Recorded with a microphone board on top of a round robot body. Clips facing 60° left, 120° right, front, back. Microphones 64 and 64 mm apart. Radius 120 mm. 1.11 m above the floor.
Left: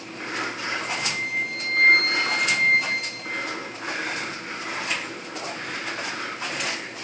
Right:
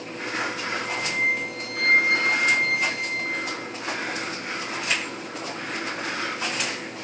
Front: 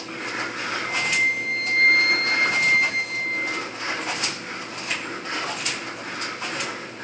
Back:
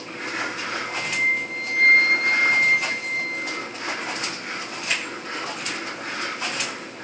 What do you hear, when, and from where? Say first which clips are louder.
0.8 s a flute: right 3 dB, front 1 dB; 25° left, 3 m